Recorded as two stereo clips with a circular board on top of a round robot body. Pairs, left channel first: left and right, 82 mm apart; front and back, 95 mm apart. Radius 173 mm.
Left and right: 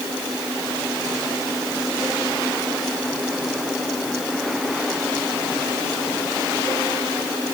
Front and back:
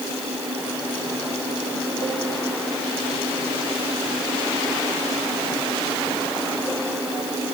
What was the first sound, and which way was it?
Only background noise.